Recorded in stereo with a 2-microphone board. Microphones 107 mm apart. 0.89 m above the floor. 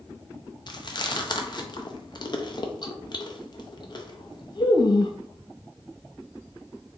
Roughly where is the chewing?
Left.